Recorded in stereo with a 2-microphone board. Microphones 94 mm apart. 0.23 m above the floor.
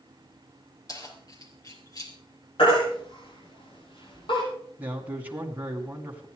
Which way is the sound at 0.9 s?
40° left (ahead or behind).